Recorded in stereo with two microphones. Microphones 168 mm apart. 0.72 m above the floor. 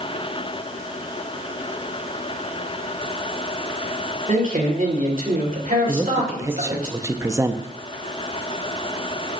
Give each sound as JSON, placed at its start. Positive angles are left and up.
{"t": 4.3, "sound": "a man speaking", "side_deg": -55, "distance_m": 2.5}
{"t": 5.9, "sound": "a man speaking", "side_deg": -20, "distance_m": 0.6}